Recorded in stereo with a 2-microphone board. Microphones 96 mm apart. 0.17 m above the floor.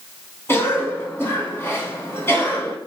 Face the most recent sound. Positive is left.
turn(degrees=25)  # may be behind; listen again after turning